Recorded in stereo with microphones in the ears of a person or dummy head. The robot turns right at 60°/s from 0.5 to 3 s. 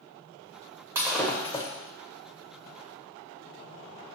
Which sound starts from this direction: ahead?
Breaking glass, at 0.9 s.